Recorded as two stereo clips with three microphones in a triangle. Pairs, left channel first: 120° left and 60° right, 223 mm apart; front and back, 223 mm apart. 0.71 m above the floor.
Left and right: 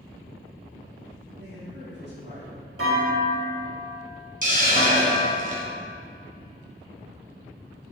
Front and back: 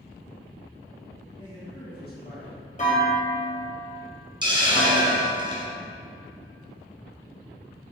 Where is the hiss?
110° right, 1.8 m.